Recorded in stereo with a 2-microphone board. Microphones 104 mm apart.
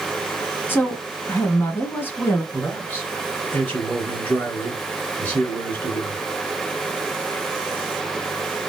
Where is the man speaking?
15° left (ahead or behind), 1.8 m.